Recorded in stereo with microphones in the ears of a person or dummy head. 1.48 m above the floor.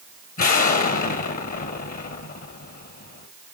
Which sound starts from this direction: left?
An explosion, at 0.4 s.